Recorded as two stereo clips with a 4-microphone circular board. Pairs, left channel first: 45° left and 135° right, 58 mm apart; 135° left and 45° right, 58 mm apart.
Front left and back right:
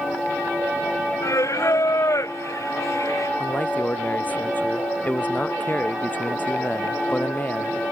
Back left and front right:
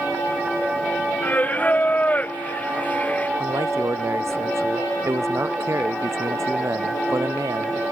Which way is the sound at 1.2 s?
70° left.